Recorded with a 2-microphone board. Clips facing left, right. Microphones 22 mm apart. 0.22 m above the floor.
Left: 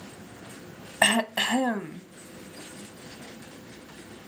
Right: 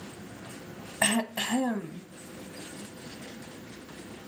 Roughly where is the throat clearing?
Left.